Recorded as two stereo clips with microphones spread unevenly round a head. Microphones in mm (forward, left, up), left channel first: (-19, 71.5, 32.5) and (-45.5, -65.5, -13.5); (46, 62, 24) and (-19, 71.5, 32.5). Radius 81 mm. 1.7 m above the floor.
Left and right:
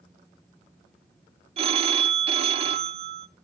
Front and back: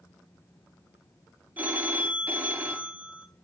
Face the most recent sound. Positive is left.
turn(degrees=-150)